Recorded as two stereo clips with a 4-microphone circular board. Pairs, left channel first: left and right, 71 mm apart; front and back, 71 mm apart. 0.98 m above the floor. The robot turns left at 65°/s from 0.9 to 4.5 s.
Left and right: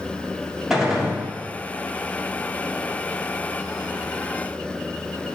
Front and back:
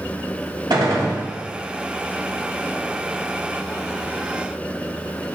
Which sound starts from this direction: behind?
A gunshot, at 0.7 s.